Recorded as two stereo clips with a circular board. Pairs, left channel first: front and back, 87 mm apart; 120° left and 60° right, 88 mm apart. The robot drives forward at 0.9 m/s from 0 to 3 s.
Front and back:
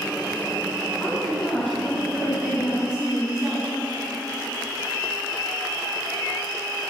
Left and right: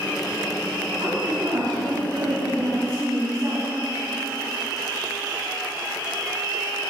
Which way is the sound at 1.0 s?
55° right.